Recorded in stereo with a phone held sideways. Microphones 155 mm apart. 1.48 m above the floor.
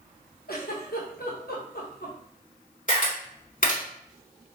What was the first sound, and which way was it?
A giggle, 75° left (ahead or behind).